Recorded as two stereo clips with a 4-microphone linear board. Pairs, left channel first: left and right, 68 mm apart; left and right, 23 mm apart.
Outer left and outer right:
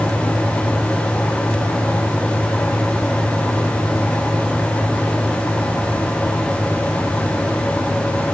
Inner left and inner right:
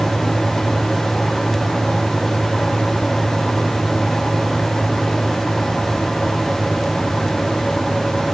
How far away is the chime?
No chime in this recording.